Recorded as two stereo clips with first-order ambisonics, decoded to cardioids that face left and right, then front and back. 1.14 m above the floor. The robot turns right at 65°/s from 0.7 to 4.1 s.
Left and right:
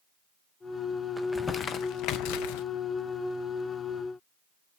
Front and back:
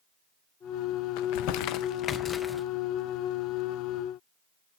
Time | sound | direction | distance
1.2 | crumpling | 5° right | 0.5 m